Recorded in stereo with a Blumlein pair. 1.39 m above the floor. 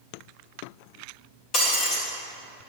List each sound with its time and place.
1.5 s breaking glass: 40° left, 2 m